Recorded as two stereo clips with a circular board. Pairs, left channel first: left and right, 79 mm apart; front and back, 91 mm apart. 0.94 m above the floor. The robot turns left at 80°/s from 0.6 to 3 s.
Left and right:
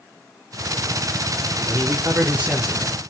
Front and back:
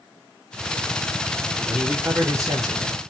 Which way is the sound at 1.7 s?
95° right.